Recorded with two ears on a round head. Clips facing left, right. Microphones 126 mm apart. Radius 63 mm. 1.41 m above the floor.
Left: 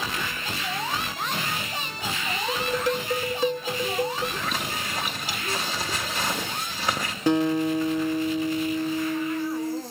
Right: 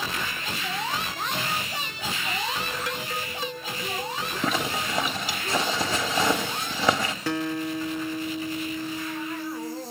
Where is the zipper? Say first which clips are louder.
Right 4 dB; 70° right (ahead or behind), 2.5 m.